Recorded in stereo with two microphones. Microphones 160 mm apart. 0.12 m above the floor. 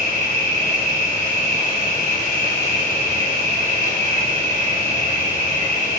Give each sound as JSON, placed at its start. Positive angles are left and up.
{"t": 0.0, "sound": "an insect", "side_deg": 60, "distance_m": 1.5}